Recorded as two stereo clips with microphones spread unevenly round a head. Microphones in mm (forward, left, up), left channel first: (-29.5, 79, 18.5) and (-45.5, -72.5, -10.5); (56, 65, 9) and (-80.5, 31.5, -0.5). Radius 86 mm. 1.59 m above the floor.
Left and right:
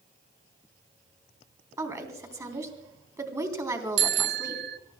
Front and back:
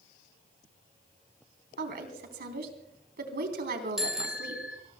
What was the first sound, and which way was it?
A woman speaking, 165° right.